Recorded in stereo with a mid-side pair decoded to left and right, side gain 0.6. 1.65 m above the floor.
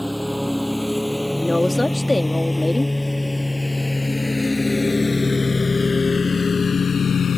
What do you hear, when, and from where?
0.0 s a lawn mower: straight ahead; by 7.4 s 45° left
1.4 s a woman speaking: 10° left